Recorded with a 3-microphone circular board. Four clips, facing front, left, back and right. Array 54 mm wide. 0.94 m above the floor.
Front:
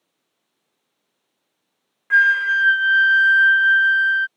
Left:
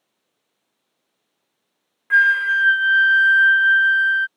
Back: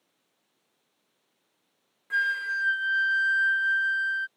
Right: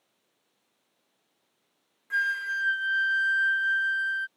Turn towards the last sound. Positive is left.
turn(degrees=45)